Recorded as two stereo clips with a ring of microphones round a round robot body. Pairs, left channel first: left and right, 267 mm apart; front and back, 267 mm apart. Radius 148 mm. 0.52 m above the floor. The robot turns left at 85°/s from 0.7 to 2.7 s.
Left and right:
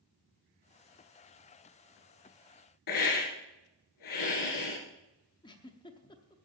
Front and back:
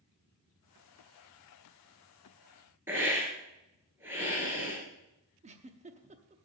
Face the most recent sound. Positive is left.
turn(degrees=145)